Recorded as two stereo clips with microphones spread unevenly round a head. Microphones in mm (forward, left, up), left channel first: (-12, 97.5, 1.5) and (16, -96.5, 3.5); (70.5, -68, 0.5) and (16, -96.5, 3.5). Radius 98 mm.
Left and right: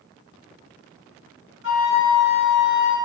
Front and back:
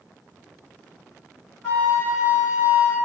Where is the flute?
115° left, 1.8 m.